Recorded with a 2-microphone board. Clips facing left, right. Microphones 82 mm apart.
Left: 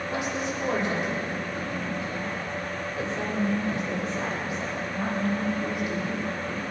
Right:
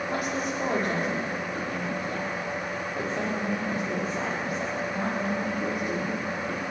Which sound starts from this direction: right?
A woman speaking, at 0.1 s.